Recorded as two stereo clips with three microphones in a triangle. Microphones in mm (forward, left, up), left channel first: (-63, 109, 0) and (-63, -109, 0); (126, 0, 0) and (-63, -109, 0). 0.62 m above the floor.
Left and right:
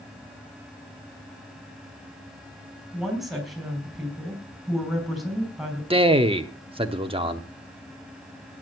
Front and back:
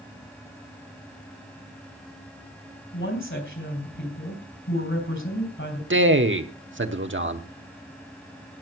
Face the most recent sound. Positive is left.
turn(degrees=-155)